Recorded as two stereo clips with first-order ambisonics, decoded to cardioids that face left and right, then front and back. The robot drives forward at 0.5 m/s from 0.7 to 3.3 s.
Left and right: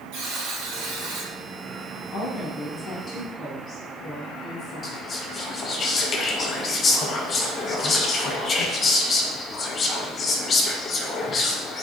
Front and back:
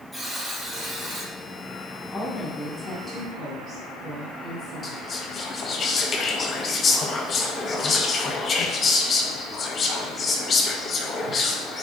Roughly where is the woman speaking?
Ahead left.